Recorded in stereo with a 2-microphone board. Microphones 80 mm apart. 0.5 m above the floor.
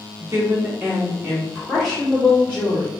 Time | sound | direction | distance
0.2 | a woman speaking | 40° right (ahead or behind) | 0.9 m